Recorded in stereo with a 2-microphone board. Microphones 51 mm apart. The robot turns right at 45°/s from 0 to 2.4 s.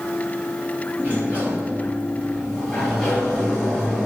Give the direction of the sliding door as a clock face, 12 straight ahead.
2 o'clock.